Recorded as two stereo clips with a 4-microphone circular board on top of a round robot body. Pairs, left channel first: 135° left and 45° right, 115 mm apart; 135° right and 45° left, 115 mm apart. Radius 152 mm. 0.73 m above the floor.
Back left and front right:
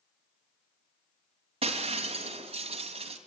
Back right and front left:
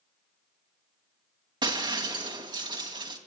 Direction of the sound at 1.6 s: 5° right.